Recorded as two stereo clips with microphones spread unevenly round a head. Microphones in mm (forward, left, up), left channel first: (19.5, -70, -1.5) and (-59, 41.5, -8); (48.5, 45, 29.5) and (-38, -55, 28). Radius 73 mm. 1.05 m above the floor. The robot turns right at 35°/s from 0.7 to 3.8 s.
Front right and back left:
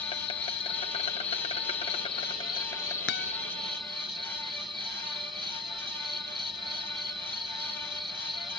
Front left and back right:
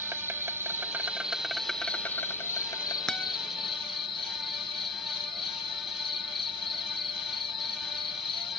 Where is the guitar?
35° right; by 3.3 s 30° right.